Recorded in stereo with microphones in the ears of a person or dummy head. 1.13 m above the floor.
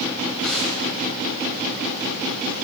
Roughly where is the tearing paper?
Centre.